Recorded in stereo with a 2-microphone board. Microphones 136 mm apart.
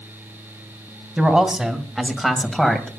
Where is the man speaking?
5° right (ahead or behind), 1.8 m; by 2.9 s 5° left (ahead or behind), 1.9 m.